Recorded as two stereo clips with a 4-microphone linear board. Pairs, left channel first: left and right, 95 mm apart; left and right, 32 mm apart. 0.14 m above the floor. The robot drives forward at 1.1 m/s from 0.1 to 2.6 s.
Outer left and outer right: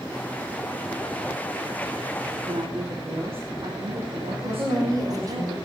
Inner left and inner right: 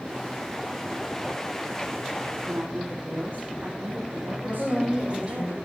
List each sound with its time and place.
2.5 s a woman speaking: 80° right, 7 m
4.4 s a woman speaking: 40° right (ahead or behind), 5 m